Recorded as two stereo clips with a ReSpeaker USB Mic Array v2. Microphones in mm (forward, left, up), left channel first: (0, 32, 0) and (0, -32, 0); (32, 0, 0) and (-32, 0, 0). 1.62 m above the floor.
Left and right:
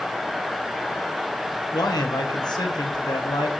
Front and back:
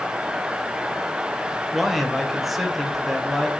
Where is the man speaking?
90° left, 1.6 m.